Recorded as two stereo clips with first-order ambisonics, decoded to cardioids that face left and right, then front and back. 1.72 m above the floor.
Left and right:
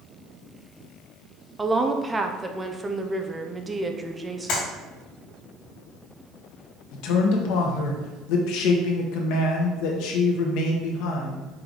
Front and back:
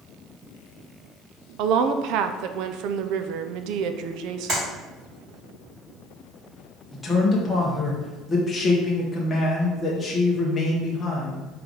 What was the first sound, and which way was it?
A woman speaking, 170° right.